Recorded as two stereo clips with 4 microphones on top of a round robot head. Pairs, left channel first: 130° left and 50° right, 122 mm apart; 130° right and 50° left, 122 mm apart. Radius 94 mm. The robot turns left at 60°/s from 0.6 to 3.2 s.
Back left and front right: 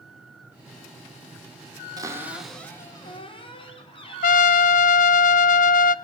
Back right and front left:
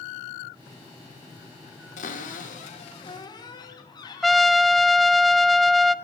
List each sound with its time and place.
2.0 s a cupboard door: 110° right, 4.5 m; by 4.8 s 175° left, 4.5 m
4.2 s a trumpet: 145° left, 0.6 m